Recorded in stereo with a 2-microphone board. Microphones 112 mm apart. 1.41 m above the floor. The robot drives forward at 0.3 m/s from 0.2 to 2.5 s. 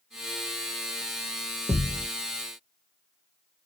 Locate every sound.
1.7 s a thud: 40° right (ahead or behind), 1.4 m